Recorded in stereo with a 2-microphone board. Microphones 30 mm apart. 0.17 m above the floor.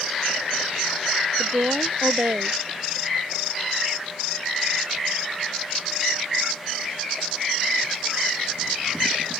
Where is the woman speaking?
85° right.